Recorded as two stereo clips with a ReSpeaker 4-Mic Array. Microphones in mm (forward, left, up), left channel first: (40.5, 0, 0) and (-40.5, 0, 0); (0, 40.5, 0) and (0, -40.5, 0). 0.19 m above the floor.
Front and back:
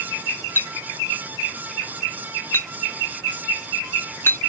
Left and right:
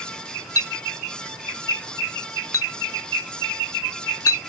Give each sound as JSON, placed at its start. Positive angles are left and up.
{"t": 0.6, "sound": "a clink", "azimuth_deg": 55}